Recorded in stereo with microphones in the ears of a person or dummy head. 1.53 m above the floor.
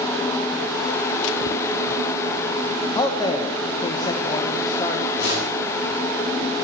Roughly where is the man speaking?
Left.